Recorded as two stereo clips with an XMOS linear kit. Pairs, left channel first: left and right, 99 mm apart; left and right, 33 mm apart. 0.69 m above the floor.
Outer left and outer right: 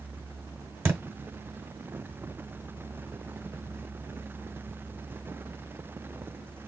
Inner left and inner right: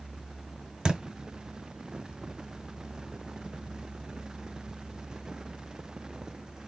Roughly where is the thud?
Right.